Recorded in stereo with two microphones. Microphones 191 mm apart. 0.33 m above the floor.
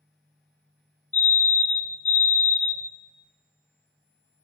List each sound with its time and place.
1.1 s a fire alarm: 10° left (ahead or behind), 1.9 m